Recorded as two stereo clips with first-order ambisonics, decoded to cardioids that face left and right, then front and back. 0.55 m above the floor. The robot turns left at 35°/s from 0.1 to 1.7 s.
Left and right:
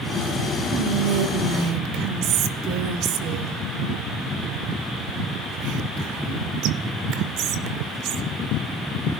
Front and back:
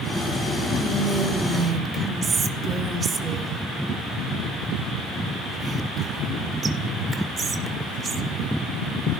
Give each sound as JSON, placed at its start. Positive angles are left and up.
{"t": 0.7, "sound": "whispering", "azimuth_deg": -75, "distance_m": 2.0}